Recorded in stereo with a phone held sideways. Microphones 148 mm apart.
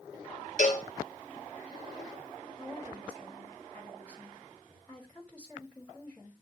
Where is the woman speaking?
10° left (ahead or behind), 3 m.